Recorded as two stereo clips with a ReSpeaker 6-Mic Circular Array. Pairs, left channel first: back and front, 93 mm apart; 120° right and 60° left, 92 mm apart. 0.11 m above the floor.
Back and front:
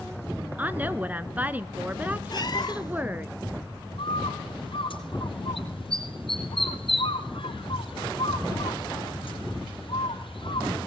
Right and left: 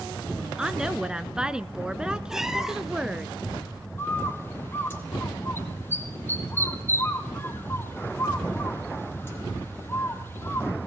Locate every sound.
0.6 s a woman speaking: straight ahead, 1.1 m
2.3 s a cat meowing: 145° left, 1.5 m
4.0 s a bird: 175° left, 3 m